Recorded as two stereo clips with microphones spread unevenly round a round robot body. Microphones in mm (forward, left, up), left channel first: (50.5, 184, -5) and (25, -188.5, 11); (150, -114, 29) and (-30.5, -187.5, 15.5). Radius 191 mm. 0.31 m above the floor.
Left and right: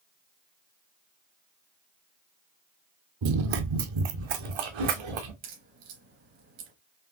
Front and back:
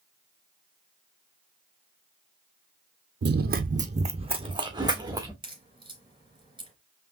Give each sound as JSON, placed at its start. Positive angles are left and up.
{"t": 3.2, "sound": "running footsteps", "azimuth_deg": -125, "distance_m": 0.6}
{"t": 5.4, "sound": "a crack", "azimuth_deg": -90, "distance_m": 3.0}